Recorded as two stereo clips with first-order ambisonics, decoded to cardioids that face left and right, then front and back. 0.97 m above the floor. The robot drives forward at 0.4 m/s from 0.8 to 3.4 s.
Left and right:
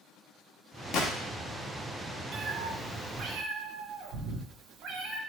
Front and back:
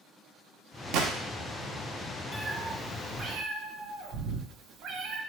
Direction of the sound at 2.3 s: 85° right.